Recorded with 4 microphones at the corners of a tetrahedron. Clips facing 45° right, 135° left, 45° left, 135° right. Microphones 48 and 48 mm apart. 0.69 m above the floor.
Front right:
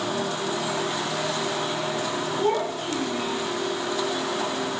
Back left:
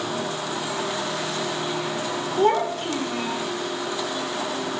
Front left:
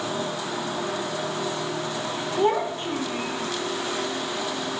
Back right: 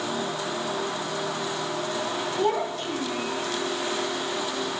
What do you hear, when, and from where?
2.4 s a child speaking: 115° left, 0.9 m